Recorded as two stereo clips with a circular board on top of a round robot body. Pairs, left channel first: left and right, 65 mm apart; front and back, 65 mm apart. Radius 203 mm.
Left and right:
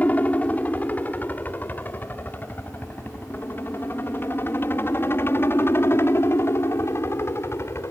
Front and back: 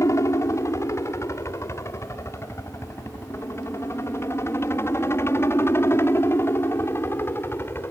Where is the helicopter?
30° left; by 7.9 s 50° left.